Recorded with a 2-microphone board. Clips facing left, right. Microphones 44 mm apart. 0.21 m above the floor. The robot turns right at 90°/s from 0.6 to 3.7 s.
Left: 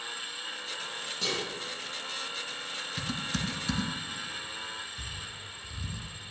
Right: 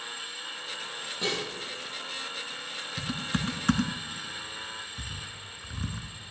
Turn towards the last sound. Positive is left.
turn(degrees=-55)  # may be behind; listen again after turning